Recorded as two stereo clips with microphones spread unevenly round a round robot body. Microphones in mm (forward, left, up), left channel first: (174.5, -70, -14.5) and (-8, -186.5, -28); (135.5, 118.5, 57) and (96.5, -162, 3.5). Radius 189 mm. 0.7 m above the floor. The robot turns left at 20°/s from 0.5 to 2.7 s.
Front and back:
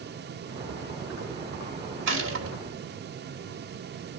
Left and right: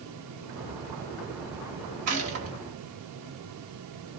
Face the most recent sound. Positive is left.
turn(degrees=-140)